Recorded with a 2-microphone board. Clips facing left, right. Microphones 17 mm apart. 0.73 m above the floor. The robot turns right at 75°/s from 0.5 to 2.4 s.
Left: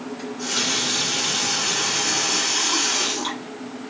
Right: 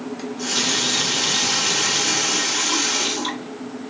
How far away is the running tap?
About 1.6 m.